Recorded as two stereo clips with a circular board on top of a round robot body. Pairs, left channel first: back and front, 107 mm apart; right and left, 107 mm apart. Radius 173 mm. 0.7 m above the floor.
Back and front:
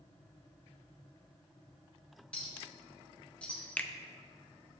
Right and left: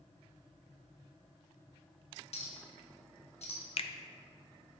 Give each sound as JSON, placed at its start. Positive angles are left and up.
{"t": 2.3, "sound": "a clink", "azimuth_deg": -100, "distance_m": 1.3}
{"t": 3.8, "sound": "a finger snap", "azimuth_deg": -105, "distance_m": 0.5}